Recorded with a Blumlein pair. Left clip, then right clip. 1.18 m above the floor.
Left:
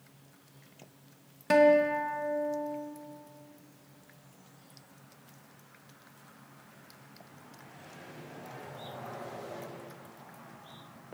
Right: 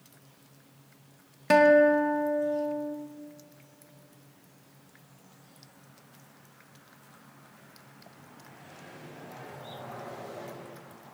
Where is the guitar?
10° right, 1.0 m.